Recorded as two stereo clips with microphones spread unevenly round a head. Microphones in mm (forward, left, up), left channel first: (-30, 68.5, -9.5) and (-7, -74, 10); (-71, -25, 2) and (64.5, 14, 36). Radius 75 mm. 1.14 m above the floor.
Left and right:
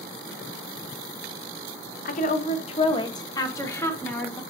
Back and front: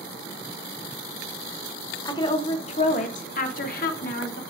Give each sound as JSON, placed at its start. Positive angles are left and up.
{"t": 2.0, "sound": "a woman speaking", "azimuth_deg": 130, "distance_m": 0.8}